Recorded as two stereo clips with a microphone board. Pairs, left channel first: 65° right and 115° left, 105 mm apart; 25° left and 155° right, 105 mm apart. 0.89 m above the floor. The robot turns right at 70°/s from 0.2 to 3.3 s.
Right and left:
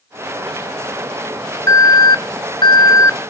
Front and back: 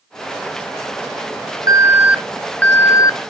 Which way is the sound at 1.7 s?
115° right.